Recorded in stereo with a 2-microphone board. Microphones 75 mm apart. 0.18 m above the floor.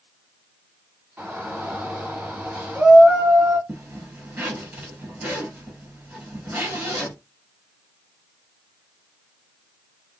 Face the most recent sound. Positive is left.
turn(degrees=-25)  # may be behind; listen again after turning